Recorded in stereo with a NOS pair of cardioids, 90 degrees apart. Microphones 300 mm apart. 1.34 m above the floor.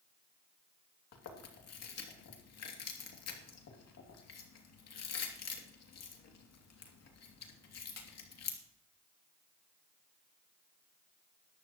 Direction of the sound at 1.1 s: 60° left.